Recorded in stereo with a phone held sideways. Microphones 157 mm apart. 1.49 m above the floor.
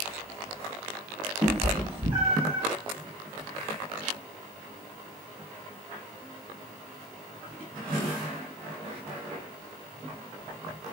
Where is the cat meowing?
35° right (ahead or behind), 2.0 m; by 2.6 s 45° right (ahead or behind), 1.8 m.